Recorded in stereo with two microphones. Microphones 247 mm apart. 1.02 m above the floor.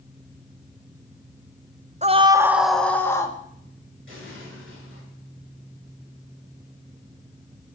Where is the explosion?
50° right (ahead or behind), 6.5 m.